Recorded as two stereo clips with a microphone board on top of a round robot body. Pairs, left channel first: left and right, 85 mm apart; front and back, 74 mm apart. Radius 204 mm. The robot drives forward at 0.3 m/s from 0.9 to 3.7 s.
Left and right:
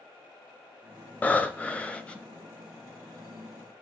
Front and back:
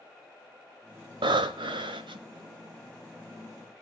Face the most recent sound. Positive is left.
turn(degrees=170)